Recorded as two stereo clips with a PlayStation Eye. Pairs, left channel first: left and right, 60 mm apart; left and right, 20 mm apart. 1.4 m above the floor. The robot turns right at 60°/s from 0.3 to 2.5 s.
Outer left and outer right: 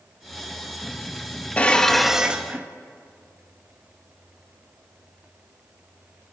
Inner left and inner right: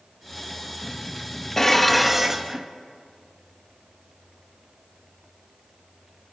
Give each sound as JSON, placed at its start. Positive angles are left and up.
{"t": 1.6, "sound": "dishes clattering", "azimuth_deg": 155, "distance_m": 1.1}